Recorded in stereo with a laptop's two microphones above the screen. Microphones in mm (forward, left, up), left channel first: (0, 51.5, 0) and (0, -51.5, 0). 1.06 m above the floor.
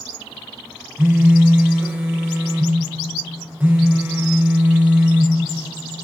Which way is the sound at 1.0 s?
20° right (ahead or behind).